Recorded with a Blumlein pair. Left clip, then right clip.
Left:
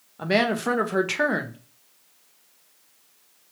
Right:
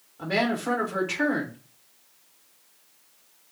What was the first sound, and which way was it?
A woman speaking, 25° left.